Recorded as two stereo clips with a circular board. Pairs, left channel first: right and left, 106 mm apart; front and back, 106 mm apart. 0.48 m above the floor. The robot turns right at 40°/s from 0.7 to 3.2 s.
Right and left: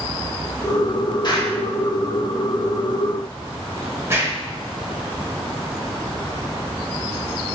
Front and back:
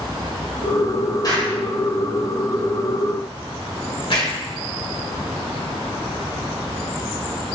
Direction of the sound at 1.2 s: 50° right.